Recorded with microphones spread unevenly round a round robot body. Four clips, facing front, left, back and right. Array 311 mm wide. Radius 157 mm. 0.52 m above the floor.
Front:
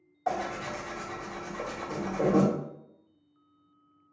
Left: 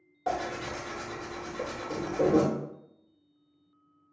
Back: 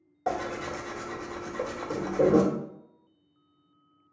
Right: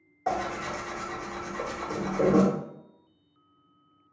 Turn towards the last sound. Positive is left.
turn(degrees=180)